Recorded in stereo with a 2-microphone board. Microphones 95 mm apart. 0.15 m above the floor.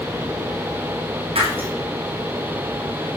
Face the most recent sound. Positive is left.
turn(degrees=-85)